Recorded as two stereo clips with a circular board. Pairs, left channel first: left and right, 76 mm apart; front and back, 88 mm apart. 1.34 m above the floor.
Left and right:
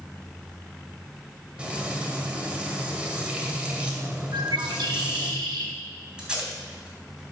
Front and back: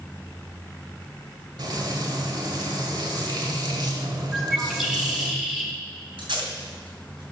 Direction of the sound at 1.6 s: 160° right.